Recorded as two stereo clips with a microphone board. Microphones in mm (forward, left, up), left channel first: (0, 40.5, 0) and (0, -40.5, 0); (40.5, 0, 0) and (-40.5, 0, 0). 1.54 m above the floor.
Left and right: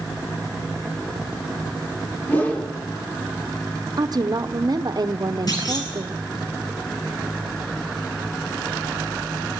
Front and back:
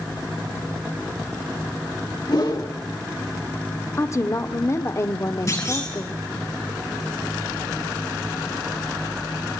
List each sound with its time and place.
2.3 s a whoosh: 20° left, 3 m
4.0 s a woman speaking: 50° right, 1.0 m
5.5 s a clunk: 50° left, 9.5 m